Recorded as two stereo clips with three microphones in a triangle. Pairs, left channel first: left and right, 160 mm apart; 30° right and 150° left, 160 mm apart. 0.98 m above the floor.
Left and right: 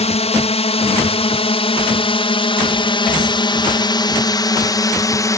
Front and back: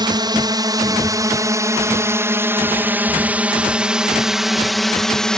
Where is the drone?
105° left; by 5.4 s 50° left.